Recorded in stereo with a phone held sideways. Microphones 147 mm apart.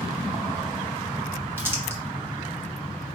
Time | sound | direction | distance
1.6 | crumpling | 15° right (ahead or behind) | 1.3 m